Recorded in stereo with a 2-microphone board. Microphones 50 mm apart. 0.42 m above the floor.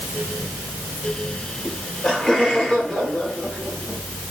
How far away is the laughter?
About 8 m.